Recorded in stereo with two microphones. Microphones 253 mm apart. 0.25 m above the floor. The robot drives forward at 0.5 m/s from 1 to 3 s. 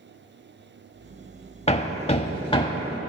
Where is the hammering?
25° left (ahead or behind), 0.5 m; by 3.0 s 15° left (ahead or behind), 0.8 m.